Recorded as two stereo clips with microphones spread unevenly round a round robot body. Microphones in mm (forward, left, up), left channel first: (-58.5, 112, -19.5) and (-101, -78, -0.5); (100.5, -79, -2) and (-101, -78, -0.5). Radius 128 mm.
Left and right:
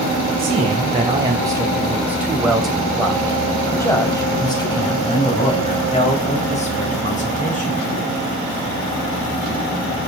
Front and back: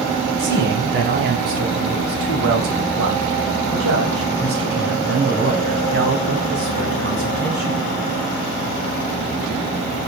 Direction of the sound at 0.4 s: 160° right.